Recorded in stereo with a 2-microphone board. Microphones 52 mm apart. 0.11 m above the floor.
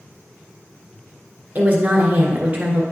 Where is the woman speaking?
30° right (ahead or behind), 1.7 m.